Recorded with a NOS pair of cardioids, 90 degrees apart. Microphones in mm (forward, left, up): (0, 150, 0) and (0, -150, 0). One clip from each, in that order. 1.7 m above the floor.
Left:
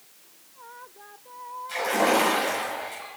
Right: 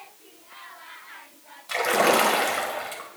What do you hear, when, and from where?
1.7 s a splash: 50° right, 1.8 m